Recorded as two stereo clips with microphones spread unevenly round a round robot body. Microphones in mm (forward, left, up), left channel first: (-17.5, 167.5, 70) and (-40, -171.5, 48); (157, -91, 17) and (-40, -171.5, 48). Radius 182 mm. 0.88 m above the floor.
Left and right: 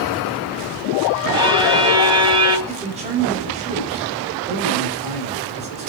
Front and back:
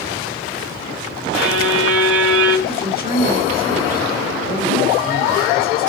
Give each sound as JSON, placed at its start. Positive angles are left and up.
{"t": 1.3, "sound": "a violin", "azimuth_deg": -170, "distance_m": 3.0}
{"t": 2.7, "sound": "a man speaking", "azimuth_deg": -20, "distance_m": 6.0}